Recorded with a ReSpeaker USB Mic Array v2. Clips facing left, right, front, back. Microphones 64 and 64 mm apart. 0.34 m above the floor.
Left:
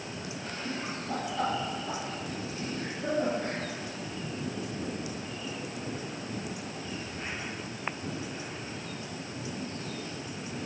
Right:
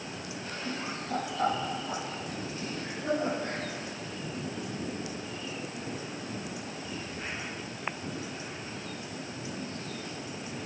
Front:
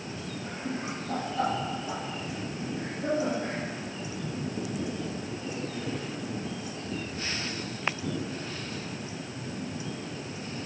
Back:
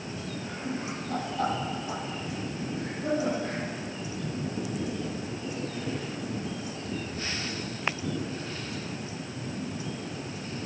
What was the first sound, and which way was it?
Laughter, 20° left.